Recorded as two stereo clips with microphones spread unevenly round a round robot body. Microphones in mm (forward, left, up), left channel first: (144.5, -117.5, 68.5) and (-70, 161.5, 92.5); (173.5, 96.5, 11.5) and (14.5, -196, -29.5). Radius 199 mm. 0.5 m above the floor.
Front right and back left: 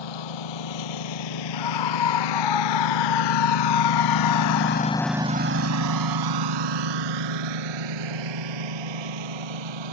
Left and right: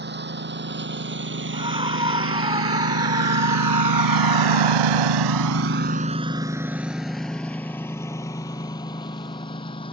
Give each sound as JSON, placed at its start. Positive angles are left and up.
{"t": 0.0, "sound": "a lawn mower", "azimuth_deg": -60}
{"t": 1.5, "sound": "a scream", "azimuth_deg": -45}